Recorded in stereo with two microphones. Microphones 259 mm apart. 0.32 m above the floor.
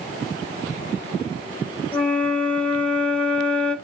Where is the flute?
5° left (ahead or behind), 0.9 m.